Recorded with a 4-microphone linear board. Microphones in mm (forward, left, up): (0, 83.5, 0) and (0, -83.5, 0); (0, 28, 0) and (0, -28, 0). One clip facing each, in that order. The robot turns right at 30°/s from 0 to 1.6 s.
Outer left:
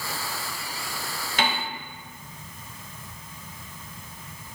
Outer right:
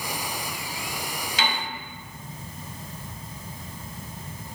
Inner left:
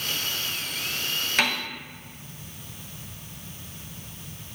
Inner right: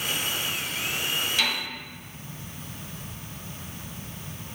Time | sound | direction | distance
1.4 | a piano | 55° left (ahead or behind) | 0.7 m